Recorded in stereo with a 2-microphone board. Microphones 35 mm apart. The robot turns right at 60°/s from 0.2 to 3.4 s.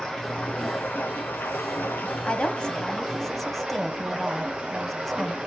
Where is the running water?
10° left, 4 m; by 5.5 s 155° right, 4 m.